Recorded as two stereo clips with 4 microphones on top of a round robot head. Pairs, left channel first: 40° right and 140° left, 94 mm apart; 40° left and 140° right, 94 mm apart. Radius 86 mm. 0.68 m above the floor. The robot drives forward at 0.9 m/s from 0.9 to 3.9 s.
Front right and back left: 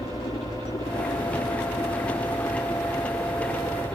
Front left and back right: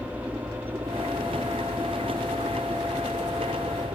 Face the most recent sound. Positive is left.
turn(degrees=-105)